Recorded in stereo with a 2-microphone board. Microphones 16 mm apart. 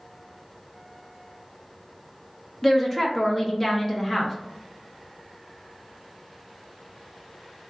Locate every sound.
2.6 s a woman speaking: 15° left (ahead or behind), 0.8 m